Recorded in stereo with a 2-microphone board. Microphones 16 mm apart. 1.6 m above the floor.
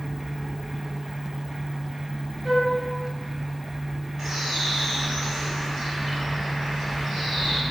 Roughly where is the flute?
Right.